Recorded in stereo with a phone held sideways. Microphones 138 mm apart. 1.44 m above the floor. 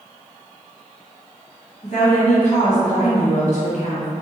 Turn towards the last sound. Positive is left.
turn(degrees=55)  # may be behind; listen again after turning